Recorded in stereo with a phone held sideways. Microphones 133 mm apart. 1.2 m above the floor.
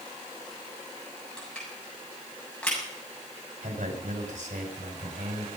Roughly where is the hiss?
I don't hear a hiss.